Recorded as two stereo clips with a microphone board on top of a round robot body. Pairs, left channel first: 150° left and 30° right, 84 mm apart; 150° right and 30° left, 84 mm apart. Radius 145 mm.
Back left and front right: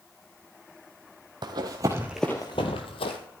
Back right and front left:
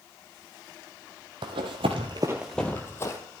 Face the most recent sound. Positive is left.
turn(degrees=155)